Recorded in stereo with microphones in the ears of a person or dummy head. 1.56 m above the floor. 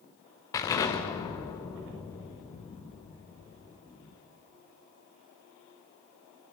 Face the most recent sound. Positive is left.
turn(degrees=20)  # may be behind; listen again after turning